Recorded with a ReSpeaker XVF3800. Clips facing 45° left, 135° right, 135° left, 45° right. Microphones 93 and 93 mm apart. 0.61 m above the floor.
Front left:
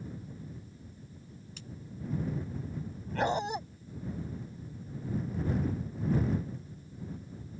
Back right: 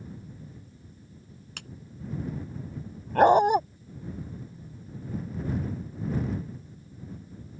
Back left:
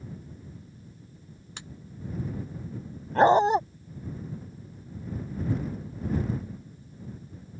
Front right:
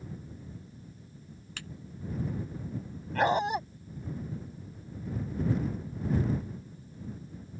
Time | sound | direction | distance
1.6 | a clap | 155° right | ?
3.1 | a dog barking | 165° right | ?